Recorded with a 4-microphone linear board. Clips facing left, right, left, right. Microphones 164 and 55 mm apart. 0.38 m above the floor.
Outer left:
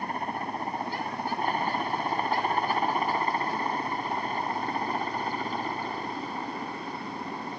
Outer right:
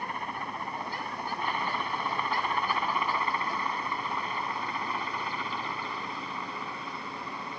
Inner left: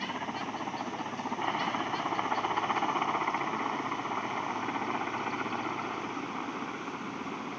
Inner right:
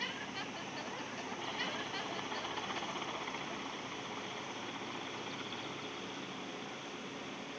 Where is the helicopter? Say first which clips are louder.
Outer left 4 dB, inner left 7 dB; 40° left (ahead or behind); by 7.6 s 45° left (ahead or behind).